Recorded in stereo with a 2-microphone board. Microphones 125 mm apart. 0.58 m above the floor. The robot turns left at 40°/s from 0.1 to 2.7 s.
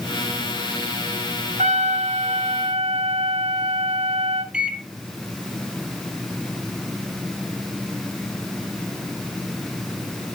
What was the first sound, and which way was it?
A trumpet, 80° right.